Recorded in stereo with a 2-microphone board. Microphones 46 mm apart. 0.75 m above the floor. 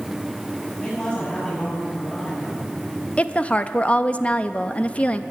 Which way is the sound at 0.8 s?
15° left (ahead or behind).